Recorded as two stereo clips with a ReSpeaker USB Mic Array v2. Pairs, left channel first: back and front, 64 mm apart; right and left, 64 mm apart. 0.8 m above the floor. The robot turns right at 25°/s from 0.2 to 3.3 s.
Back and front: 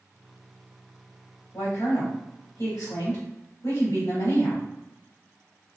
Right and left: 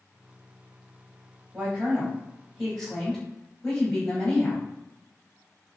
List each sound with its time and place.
1.5 s a woman speaking: 150° left, 1.4 m; by 4.7 s 170° right, 1.4 m